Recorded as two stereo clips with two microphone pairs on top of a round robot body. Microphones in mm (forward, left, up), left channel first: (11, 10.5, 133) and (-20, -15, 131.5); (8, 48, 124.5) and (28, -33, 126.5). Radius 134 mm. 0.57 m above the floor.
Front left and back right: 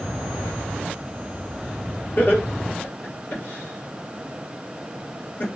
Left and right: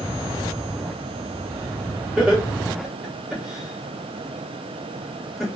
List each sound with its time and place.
2.2 s laughter: 5° left, 3 m